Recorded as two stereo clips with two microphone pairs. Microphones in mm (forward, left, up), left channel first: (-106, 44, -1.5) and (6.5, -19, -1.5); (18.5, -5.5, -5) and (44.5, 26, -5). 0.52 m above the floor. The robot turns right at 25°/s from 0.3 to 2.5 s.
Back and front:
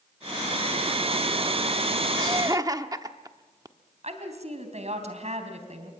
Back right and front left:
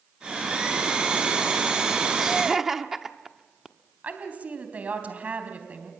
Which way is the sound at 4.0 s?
Straight ahead.